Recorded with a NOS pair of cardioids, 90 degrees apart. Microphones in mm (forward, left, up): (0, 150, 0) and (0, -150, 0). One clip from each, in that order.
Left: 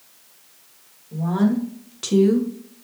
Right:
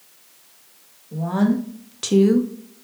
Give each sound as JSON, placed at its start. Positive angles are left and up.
{"t": 1.1, "sound": "a woman speaking", "azimuth_deg": -15, "distance_m": 1.7}